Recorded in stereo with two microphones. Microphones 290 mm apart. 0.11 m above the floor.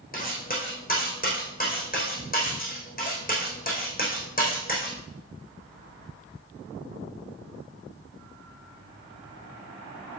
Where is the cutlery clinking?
30° left (ahead or behind), 3.5 m.